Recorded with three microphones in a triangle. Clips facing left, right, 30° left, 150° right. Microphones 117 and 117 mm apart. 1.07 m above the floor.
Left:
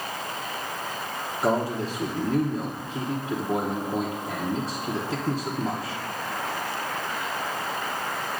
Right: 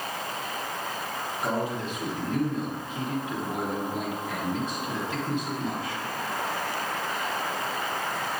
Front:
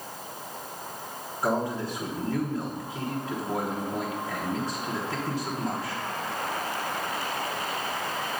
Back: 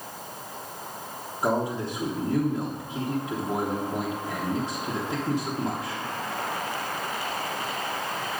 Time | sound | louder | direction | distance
1.4 | a man speaking | left 5 dB, back 1 dB | 135° left | 1.0 m